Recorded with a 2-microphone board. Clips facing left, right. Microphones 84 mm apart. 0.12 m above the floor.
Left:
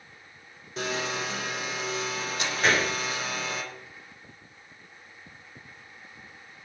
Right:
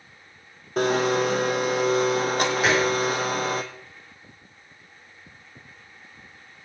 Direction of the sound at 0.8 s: 50° right (ahead or behind).